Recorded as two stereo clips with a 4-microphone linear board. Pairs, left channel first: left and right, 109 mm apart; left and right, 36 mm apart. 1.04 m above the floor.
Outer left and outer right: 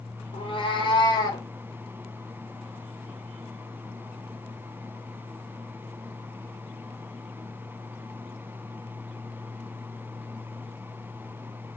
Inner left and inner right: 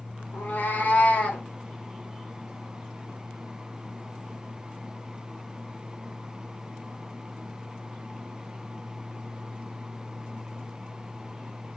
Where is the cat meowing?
55° left (ahead or behind), 1.6 m; by 1.4 s 35° left (ahead or behind), 1.8 m.